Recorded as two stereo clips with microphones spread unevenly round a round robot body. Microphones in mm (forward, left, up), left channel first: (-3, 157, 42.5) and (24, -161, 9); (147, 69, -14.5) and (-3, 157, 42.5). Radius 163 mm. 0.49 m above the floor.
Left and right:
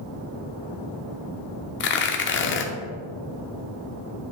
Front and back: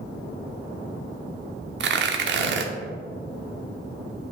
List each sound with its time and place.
1.8 s tearing paper: 145° left, 0.6 m